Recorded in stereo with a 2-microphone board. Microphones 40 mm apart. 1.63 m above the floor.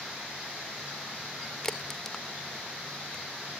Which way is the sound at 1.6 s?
20° left (ahead or behind).